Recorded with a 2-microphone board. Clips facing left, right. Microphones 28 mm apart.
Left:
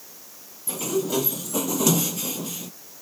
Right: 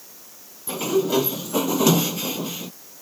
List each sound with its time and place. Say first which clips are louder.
0.7 s a sliding door: right 4 dB; 20° right (ahead or behind)